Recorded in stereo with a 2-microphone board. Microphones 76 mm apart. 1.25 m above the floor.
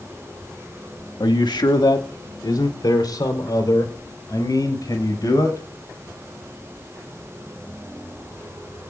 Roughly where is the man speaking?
Left.